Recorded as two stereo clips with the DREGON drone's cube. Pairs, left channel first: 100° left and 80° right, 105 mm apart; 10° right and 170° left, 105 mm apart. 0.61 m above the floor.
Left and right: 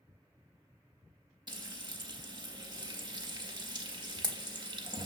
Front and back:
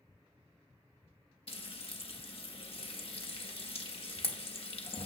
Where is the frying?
35° right, 0.6 m.